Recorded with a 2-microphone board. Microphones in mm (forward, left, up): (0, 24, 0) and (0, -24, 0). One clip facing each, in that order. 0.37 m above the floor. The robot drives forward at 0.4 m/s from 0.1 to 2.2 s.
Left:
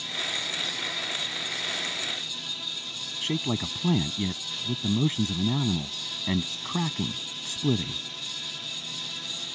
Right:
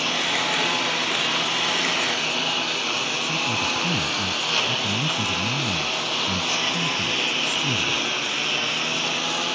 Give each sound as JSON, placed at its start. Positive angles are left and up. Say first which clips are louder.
{"t": 0.0, "sound": "a lawn mower", "louder": "right 9 dB", "side_deg": -70}
{"t": 3.2, "sound": "a man speaking", "louder": "even", "side_deg": 40}